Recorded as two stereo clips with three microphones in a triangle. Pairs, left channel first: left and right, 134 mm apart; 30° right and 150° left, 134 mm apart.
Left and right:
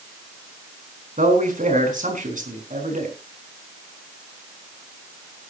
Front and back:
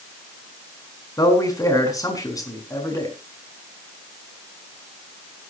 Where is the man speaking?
95° right, 4.5 m.